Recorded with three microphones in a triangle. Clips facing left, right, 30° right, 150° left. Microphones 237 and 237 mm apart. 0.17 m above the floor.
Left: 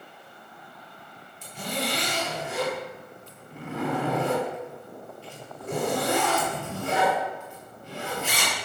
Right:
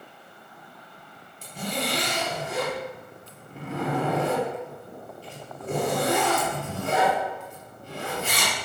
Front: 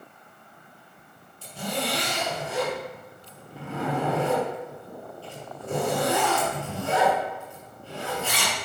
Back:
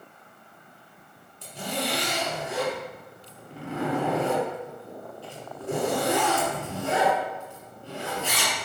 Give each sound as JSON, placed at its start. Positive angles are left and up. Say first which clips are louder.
{"t": 1.4, "sound": "a zipper", "louder": "right 1 dB, front 1 dB", "azimuth_deg": -140, "distance_m": 4.0}